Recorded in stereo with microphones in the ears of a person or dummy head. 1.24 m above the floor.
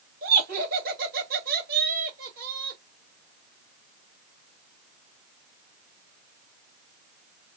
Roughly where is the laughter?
Right.